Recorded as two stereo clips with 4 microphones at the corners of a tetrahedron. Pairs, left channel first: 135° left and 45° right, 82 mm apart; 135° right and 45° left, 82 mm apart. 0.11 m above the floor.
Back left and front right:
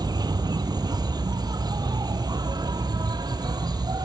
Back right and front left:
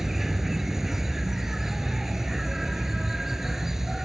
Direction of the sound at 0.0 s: 40° right.